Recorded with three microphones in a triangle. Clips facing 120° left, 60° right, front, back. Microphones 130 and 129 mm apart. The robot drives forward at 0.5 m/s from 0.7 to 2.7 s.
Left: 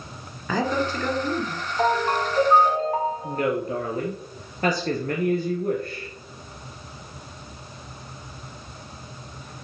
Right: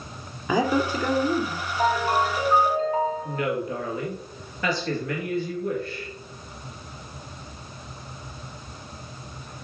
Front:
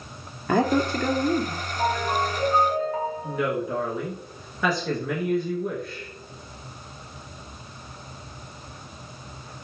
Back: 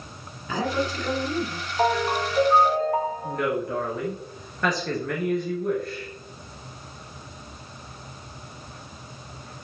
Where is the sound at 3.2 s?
85° left, 2.5 m.